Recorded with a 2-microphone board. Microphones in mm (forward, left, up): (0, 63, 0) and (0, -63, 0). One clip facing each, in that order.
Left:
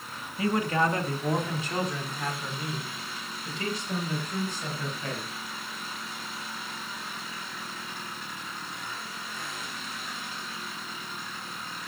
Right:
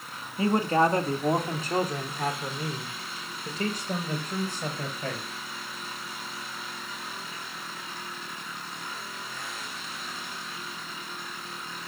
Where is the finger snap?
I don't hear a finger snap.